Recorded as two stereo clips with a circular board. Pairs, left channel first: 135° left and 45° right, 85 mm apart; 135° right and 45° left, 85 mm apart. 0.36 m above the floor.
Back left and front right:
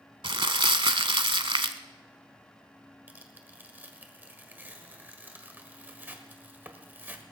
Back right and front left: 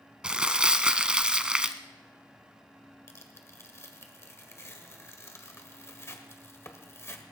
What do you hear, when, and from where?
0.2 s crumpling: 35° right, 0.7 m
3.1 s tearing paper: 100° right, 1.5 m